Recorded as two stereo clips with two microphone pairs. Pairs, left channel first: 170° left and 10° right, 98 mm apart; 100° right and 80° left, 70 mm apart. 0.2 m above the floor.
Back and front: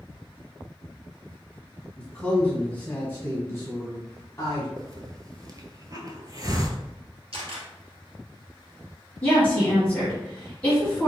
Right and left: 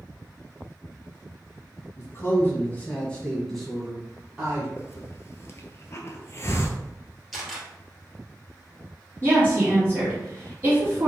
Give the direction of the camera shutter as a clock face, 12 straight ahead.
12 o'clock.